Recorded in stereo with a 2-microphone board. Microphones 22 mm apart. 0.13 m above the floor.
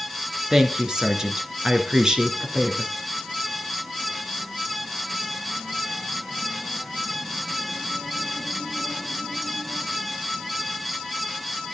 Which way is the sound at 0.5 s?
30° right (ahead or behind).